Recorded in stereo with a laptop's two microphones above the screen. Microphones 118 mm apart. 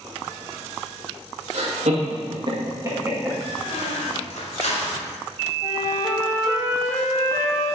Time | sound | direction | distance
1.5 | laughter | 70° right (ahead or behind) | 2 m
3.6 | a squeak | 70° left (ahead or behind) | 2.5 m
5.6 | a flute | 30° left (ahead or behind) | 3.5 m